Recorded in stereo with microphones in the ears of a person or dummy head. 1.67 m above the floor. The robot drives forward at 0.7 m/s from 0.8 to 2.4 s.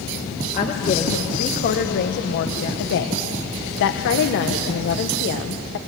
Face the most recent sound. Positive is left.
turn(degrees=65)  # may be behind; listen again after turning